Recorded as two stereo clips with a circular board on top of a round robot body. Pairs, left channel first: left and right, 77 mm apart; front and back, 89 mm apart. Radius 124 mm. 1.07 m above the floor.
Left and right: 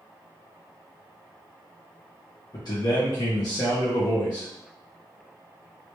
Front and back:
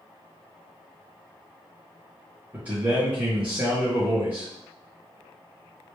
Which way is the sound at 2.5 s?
110° left.